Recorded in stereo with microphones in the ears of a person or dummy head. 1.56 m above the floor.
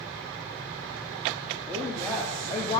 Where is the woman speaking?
5° left (ahead or behind), 2.5 m; by 2.8 s 20° left (ahead or behind), 1.1 m.